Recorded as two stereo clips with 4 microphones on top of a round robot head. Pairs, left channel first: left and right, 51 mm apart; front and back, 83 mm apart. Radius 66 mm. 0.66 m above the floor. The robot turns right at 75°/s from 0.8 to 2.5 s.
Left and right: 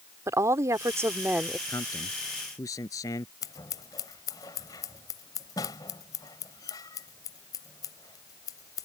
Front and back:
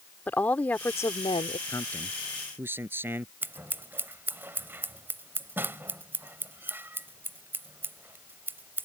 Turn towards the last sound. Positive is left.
turn(degrees=115)